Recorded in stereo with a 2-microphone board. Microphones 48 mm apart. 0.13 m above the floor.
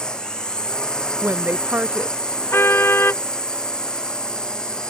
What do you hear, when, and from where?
0.0 s a drone: 15° left (ahead or behind)
1.2 s a woman speaking: 40° right (ahead or behind)
2.5 s a car horn: 50° left (ahead or behind)